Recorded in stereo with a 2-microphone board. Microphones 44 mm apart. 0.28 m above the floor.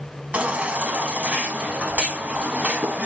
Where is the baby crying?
30° right (ahead or behind), 0.9 m.